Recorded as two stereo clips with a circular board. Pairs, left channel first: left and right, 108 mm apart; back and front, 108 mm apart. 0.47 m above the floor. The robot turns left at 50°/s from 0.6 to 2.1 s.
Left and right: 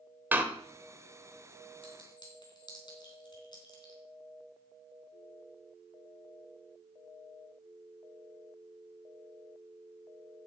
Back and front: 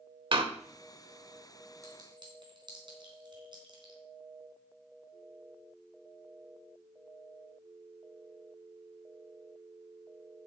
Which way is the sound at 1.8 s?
55° left.